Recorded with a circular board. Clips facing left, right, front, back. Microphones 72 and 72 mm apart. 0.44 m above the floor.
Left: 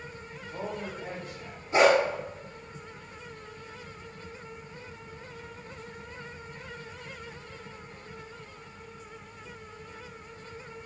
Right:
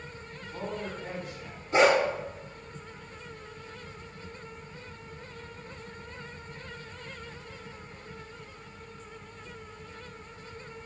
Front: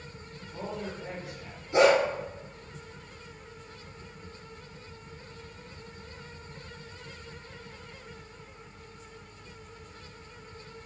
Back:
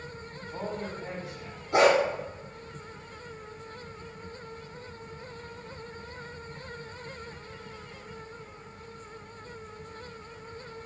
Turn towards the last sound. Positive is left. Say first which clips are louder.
# left 1 dB, even
turn(degrees=175)